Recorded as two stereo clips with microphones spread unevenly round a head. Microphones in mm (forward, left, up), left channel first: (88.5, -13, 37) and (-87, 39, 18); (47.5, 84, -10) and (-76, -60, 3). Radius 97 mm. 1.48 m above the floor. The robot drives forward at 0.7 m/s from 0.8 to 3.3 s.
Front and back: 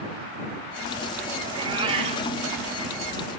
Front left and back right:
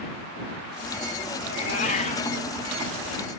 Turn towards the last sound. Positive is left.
turn(degrees=120)